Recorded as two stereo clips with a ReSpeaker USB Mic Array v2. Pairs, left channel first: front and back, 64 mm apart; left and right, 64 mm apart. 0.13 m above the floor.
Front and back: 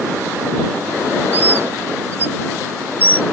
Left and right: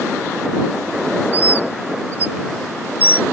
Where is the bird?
140° right.